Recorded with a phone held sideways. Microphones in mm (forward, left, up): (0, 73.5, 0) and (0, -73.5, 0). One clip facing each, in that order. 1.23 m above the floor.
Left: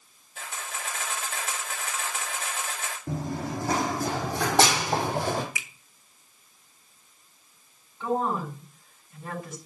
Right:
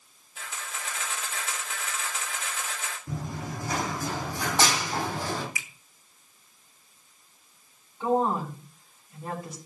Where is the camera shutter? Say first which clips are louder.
Left 2 dB; 55° left (ahead or behind), 3 m.